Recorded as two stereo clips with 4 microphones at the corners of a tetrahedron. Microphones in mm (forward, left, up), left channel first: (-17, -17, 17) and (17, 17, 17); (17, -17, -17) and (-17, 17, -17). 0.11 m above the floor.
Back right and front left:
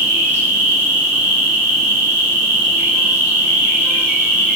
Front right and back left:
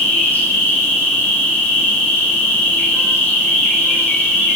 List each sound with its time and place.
0.0 s an insect: straight ahead, 1.4 m